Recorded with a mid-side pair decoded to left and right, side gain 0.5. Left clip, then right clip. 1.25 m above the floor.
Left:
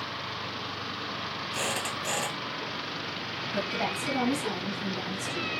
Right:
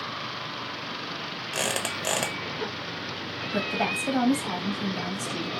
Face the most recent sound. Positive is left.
turn(degrees=-60)